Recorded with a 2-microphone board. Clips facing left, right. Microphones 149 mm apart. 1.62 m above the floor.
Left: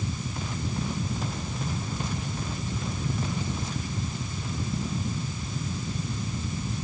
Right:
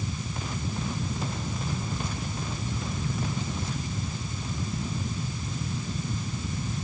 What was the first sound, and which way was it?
Only background noise.